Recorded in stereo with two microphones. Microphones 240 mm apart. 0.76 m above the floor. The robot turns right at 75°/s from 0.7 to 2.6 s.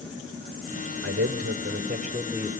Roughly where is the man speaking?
Right.